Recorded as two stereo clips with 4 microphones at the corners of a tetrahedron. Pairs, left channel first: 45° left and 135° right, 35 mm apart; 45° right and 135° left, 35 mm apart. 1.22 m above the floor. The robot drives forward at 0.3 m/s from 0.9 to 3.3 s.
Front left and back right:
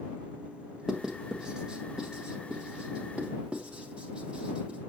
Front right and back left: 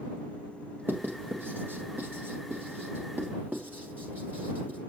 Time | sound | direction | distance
0.9 | writing | 150° left | 1.4 m